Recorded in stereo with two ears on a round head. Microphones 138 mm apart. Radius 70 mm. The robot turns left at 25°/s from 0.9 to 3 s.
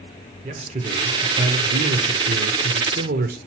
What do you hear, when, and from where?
0.4 s a man speaking: 45° right, 0.8 m; by 3.4 s 100° right, 0.8 m